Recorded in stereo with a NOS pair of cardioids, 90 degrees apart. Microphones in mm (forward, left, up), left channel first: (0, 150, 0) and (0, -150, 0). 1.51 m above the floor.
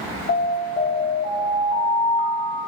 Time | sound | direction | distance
0.3 | an alarm | 35° left | 0.7 m